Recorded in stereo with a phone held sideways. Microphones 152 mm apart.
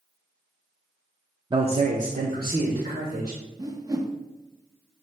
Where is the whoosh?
25° right (ahead or behind), 0.7 m.